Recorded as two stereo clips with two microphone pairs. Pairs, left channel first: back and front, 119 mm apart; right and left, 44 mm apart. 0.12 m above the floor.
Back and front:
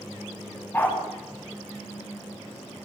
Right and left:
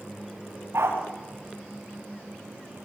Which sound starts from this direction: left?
A dog barking, at 0.7 s.